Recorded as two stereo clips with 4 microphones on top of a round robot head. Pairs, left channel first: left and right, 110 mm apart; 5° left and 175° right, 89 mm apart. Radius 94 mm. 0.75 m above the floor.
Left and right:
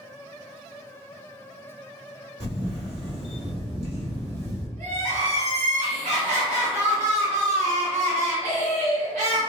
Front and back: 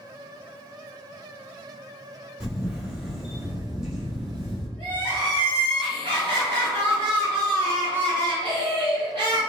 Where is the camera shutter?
95° right, 1.8 m.